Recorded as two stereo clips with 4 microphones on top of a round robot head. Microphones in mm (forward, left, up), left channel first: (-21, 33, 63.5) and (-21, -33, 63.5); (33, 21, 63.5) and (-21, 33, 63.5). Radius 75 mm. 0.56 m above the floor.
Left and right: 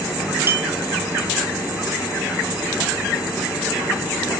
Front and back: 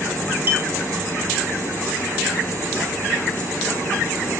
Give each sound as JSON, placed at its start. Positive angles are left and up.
{"t": 0.5, "sound": "a clink", "azimuth_deg": -145, "distance_m": 1.6}